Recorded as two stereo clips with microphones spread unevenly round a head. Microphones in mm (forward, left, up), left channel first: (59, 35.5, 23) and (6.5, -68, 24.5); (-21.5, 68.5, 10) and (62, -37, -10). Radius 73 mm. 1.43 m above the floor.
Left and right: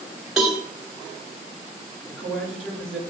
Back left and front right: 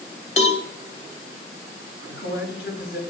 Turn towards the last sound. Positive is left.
turn(degrees=150)